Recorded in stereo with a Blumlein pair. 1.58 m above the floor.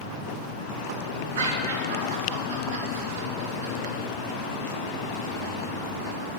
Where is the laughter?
55° right, 3 m.